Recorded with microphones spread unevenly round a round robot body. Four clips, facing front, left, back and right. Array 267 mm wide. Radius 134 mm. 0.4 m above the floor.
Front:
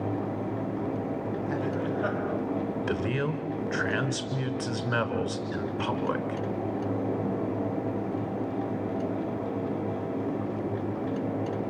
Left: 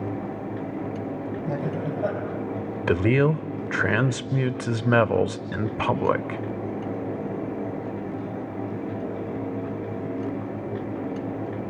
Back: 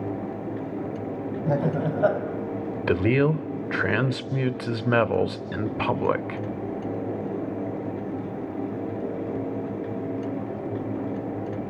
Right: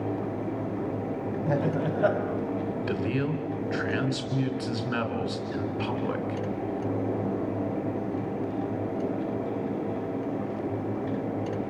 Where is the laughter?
160° right, 3 m.